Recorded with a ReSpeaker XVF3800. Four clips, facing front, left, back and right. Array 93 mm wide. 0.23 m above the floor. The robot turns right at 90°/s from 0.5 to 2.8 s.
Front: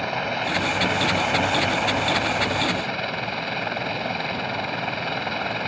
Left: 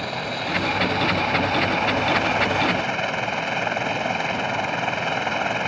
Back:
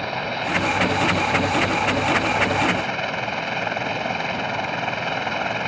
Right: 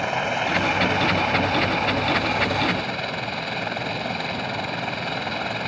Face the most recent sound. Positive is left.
turn(degrees=120)